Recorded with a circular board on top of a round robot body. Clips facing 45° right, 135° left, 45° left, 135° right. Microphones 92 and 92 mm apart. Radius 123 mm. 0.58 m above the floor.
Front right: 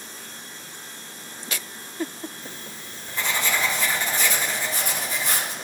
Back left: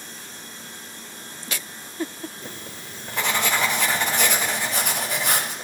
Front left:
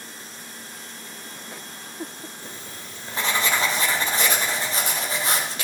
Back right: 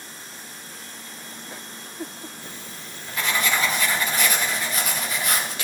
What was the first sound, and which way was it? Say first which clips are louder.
Writing: back left 1 dB, even; 105° left.